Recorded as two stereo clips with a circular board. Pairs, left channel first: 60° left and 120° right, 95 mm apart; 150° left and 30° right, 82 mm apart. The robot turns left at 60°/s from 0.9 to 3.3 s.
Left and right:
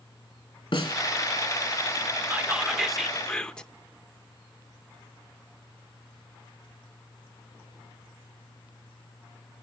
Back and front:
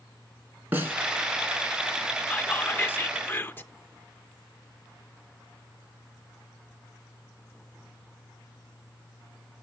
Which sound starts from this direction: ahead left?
A snare drum, at 0.7 s.